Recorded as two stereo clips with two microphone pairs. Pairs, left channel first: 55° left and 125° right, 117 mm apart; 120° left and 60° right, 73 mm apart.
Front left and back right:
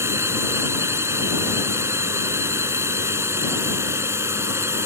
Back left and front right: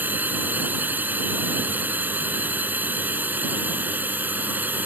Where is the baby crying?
I don't hear a baby crying.